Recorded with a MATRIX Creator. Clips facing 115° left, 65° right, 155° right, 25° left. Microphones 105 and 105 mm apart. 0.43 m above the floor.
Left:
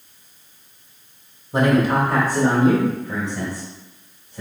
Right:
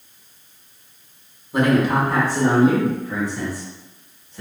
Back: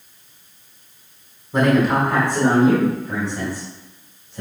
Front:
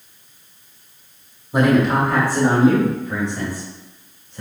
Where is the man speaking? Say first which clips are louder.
Even, front 1 dB; 90° left, 1.1 m; by 4.4 s 170° left, 3 m.